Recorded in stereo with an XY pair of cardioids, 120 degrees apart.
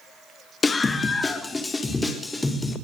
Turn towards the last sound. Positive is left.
turn(degrees=15)